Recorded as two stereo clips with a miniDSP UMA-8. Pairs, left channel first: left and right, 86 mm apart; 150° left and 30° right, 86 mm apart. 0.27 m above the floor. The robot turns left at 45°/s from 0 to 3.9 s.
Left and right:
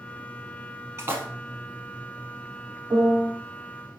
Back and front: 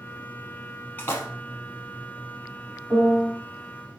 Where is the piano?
70° right, 2 m; by 3.3 s 90° right, 2 m.